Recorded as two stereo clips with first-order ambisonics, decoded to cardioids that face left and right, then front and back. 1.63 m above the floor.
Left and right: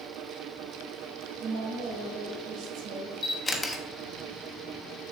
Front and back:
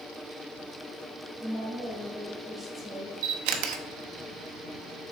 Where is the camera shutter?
170° left, 0.8 m.